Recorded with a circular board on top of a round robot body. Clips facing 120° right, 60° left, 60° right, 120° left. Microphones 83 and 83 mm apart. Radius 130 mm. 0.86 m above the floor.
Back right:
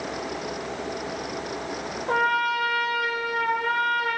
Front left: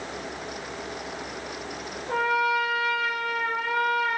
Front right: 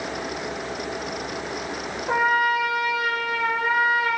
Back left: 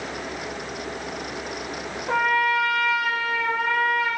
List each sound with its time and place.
2.1 s a trumpet: 135° right, 0.7 m